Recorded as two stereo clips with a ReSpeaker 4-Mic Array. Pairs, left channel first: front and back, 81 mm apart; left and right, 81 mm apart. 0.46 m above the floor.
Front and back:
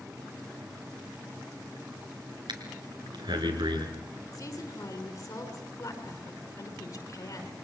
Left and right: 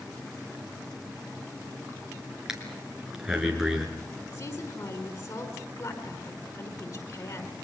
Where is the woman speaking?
50° left, 6 m.